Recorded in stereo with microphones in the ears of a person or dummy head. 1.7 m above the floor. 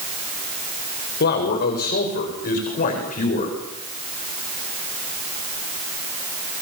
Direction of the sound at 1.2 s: 55° left (ahead or behind).